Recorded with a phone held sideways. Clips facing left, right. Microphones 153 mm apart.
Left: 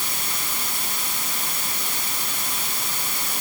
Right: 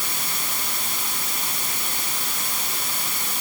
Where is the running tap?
I don't hear a running tap.